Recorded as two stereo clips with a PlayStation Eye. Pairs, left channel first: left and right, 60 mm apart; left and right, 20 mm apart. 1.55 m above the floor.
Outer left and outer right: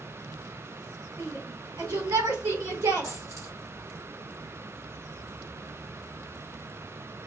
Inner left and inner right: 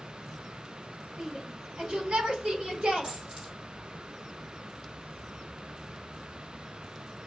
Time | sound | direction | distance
1.2 | a shout | 75° right (ahead or behind) | 2.5 m
3.0 | a dropped coin | 60° right (ahead or behind) | 2.5 m